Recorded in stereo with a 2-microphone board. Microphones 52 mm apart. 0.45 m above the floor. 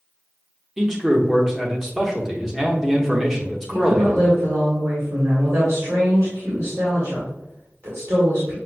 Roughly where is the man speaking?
Centre.